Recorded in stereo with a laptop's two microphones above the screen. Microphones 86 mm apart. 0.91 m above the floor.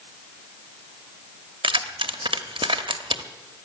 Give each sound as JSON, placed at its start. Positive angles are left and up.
{"t": 1.6, "sound": "keys jangling", "side_deg": -75, "distance_m": 1.0}